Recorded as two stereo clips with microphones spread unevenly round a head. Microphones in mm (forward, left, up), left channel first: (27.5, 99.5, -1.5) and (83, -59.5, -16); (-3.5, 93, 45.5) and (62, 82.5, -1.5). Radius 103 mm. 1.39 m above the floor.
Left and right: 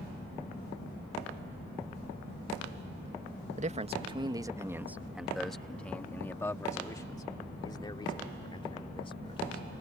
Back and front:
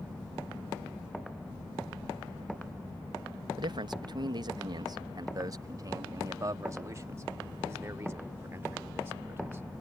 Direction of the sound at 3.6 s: 25° right.